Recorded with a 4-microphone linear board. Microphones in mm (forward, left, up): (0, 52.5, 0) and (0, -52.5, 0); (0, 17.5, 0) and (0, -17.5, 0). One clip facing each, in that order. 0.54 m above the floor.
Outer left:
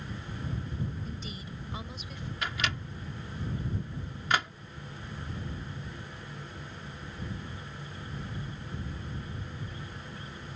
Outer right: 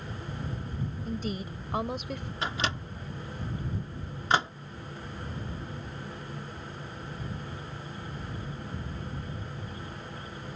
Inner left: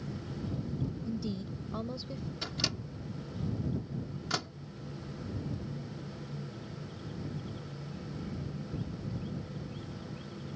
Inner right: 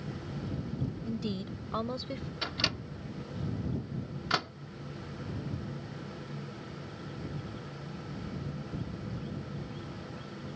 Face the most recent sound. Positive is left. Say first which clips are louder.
# outer right 2 dB, inner right 4 dB
turn(degrees=-30)  # may be behind; listen again after turning